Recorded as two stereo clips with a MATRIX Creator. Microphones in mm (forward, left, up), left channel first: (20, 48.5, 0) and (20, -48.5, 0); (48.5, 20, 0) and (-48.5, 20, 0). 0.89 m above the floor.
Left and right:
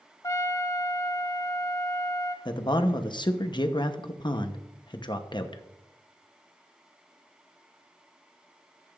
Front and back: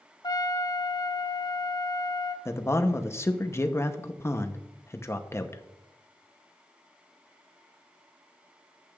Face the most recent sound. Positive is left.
turn(degrees=60)